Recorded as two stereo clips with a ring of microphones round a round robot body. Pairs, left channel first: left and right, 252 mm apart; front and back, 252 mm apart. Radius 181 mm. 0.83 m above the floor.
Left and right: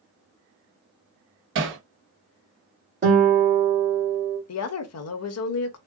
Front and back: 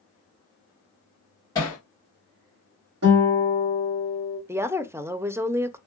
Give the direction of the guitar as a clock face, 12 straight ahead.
5 o'clock.